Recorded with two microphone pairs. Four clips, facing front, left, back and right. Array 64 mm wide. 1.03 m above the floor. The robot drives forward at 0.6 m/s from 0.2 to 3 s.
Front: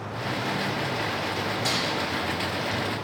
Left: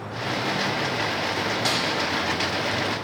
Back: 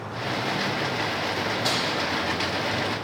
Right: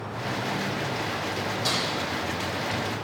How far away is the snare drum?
About 2 m.